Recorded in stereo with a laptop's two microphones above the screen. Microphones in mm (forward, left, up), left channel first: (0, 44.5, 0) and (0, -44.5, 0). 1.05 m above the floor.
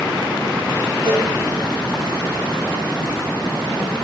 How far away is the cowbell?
About 7 m.